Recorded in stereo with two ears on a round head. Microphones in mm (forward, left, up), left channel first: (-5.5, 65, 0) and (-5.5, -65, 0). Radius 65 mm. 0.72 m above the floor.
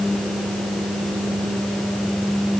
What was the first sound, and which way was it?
Only background noise.